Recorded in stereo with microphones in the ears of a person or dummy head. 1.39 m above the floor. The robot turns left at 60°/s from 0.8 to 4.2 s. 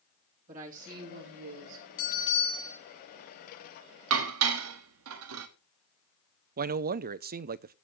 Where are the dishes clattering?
70° right (ahead or behind), 1.4 m.